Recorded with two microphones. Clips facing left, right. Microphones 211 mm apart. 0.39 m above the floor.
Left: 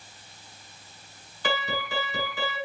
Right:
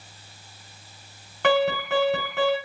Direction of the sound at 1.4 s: 70° right (ahead or behind).